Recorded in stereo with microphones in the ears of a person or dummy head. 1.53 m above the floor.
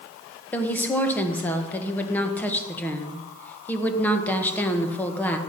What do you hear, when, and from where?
0.5 s a woman speaking: 10° left (ahead or behind), 1.5 m